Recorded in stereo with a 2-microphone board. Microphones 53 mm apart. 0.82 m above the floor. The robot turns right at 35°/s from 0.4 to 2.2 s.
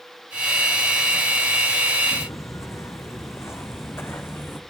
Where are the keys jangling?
No keys jangling in this recording.